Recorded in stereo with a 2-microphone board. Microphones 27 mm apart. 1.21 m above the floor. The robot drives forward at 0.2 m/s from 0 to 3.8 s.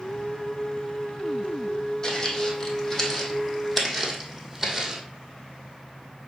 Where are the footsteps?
25° left (ahead or behind), 3 m; by 5.0 s 10° right (ahead or behind), 2.5 m.